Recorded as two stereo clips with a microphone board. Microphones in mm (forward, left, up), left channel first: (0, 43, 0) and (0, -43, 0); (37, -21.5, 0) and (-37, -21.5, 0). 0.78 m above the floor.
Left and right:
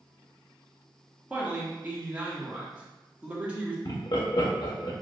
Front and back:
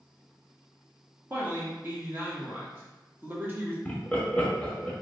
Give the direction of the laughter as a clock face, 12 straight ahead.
10 o'clock.